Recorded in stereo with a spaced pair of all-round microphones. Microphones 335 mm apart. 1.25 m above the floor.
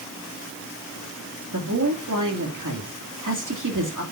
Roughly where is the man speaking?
Right.